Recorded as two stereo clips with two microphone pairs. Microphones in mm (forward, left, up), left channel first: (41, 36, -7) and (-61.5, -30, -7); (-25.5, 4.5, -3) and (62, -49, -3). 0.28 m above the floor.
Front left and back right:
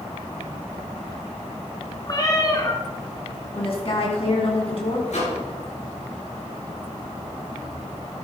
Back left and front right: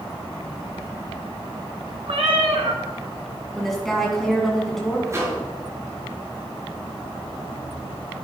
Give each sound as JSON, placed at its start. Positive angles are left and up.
{"t": 2.1, "sound": "a cat meowing", "azimuth_deg": -25, "distance_m": 1.7}
{"t": 3.5, "sound": "a woman speaking", "azimuth_deg": 60, "distance_m": 2.0}
{"t": 5.1, "sound": "a microwave", "azimuth_deg": 25, "distance_m": 4.5}